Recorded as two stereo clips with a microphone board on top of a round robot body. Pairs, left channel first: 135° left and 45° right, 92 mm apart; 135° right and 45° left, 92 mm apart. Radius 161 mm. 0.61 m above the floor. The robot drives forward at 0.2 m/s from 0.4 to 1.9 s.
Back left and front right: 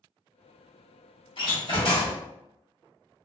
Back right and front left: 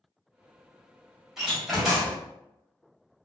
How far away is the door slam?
About 1.4 m.